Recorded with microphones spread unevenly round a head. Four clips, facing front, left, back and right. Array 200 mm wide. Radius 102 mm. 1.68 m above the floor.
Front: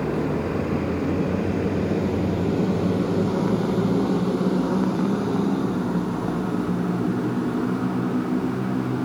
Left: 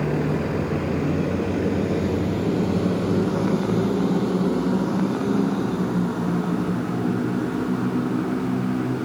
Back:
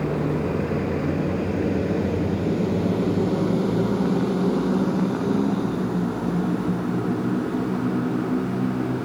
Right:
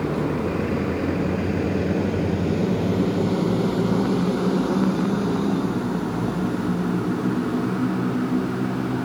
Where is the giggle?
No giggle in this recording.